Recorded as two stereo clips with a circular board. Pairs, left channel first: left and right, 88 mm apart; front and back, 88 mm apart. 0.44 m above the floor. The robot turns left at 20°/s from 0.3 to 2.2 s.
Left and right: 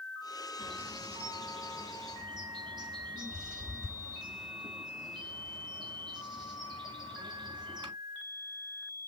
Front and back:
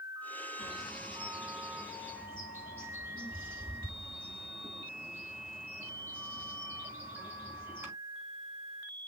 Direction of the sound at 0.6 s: 90° right.